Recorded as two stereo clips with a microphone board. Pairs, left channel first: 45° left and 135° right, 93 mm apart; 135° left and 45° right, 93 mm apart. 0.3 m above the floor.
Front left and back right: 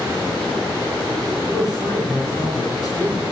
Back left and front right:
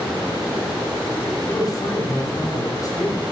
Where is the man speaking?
90° left, 4.5 m.